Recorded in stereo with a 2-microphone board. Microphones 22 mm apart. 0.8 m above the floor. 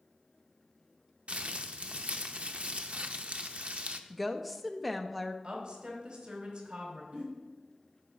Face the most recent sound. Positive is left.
turn(degrees=-60)  # may be behind; listen again after turning